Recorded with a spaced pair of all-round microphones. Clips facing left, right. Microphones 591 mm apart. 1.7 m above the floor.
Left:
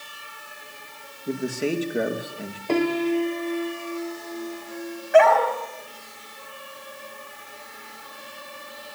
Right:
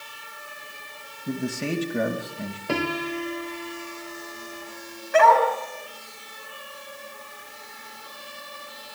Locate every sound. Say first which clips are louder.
1.3 s a man speaking: left 2 dB; 25° right (ahead or behind), 2.5 m
2.7 s a piano: left 7 dB; 35° right (ahead or behind), 1.4 m
5.1 s a dog barking: left 2 dB; 15° left (ahead or behind), 4.5 m